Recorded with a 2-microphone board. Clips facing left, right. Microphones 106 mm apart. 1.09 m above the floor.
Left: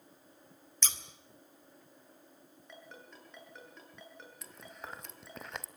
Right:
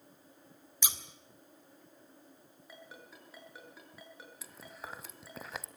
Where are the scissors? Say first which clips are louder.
Right 1 dB; 15° right (ahead or behind), 1.7 m.